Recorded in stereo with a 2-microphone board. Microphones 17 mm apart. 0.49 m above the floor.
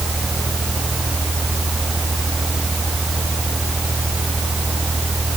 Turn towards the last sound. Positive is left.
No sound to turn to.